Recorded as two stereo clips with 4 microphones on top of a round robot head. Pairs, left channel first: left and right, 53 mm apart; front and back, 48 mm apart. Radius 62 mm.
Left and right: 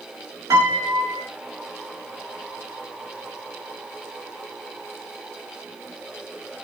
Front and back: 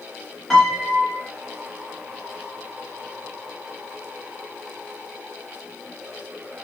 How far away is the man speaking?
I don't hear a man speaking.